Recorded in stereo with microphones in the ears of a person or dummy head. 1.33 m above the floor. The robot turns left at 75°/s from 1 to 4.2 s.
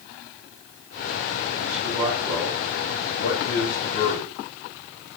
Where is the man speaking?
130° right, 3 m; by 4.3 s 35° left, 3 m.